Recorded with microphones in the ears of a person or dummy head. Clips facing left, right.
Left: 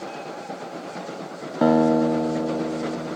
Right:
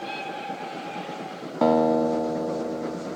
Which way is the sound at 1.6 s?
10° left (ahead or behind).